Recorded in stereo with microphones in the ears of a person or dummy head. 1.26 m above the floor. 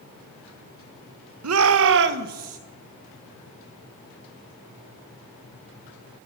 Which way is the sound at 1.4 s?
90° right.